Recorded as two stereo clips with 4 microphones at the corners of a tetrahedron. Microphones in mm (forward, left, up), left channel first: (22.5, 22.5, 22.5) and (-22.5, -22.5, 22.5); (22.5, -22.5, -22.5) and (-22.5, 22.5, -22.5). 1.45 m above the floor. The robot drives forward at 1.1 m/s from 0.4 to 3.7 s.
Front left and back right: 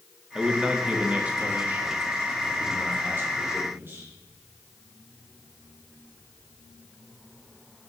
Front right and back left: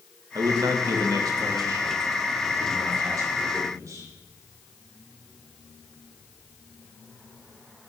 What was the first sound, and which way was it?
A man speaking, 145° left.